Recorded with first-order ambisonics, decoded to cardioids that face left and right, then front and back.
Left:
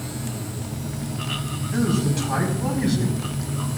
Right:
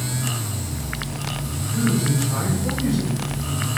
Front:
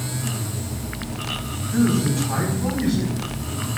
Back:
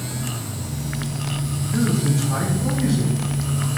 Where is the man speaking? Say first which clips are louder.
Right 1 dB, front 2 dB; 65° left, 3.5 m; by 3.7 s 70° left, 4.5 m.